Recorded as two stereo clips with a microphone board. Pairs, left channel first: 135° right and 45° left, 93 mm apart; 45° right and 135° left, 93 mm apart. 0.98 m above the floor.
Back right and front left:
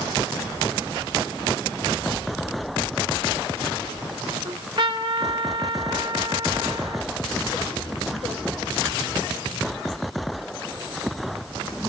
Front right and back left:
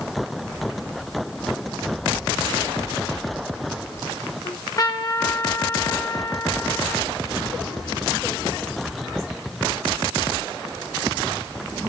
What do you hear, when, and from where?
4.5 s a trumpet: 10° left, 3.5 m